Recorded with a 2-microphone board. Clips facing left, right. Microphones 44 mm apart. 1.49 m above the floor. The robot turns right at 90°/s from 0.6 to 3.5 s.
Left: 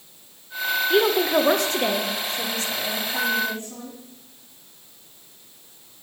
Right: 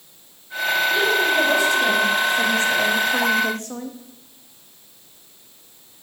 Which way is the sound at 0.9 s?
55° left.